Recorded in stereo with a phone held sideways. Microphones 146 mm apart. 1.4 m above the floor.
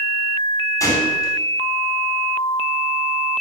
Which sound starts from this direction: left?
A gunshot, at 0.8 s.